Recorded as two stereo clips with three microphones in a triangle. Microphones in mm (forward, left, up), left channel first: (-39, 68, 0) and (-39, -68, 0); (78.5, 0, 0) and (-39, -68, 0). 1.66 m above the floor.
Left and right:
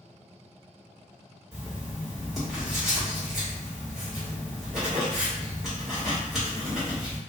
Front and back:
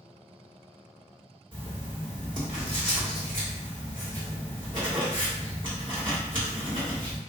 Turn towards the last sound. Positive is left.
turn(degrees=-175)